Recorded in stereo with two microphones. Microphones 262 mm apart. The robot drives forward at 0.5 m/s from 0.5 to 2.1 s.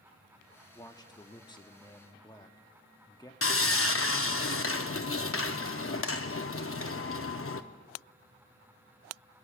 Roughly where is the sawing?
Left.